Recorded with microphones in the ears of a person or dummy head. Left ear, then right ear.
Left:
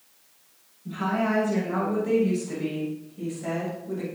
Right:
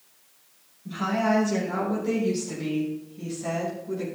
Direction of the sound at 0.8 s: 10° right (ahead or behind).